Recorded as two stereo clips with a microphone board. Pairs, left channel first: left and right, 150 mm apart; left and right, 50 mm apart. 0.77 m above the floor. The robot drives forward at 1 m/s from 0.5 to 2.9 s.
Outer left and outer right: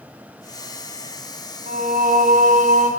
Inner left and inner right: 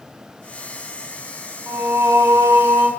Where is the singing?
75° right (ahead or behind), 3 m; by 2.9 s 60° right (ahead or behind), 3.5 m.